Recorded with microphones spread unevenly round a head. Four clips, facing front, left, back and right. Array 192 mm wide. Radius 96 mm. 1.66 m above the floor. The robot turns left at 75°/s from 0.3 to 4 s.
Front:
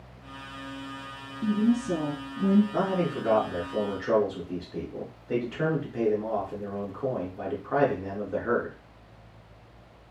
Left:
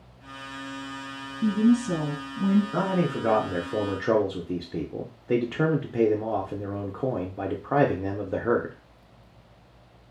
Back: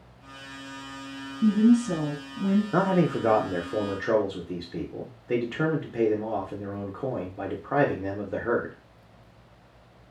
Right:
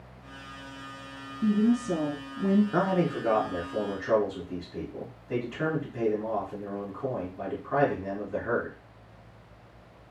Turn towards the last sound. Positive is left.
turn(degrees=100)